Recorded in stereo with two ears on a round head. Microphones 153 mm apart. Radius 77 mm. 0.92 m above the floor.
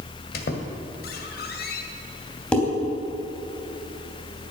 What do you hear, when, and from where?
0.3 s a squeak: 60° left (ahead or behind), 1.9 m
2.5 s dishes clattering: 5° left (ahead or behind), 3.5 m